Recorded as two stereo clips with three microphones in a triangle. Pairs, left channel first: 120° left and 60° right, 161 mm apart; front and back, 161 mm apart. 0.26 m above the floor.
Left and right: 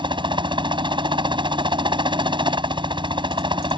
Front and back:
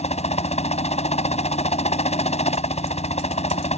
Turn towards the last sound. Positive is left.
turn(degrees=-15)